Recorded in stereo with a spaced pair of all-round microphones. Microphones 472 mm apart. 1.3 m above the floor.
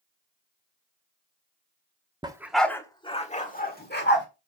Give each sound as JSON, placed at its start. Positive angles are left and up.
{"t": 2.2, "sound": "a dog barking", "side_deg": -10, "distance_m": 0.8}